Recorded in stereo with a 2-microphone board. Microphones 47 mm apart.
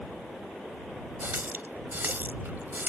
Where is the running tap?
45° right (ahead or behind).